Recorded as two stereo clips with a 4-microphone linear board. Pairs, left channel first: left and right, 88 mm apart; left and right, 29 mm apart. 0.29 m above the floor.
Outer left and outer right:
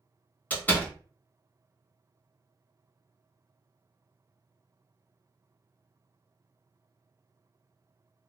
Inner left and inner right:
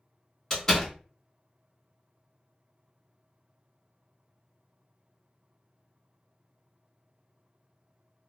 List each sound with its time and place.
0.5 s a door slam: 20° left (ahead or behind), 1.1 m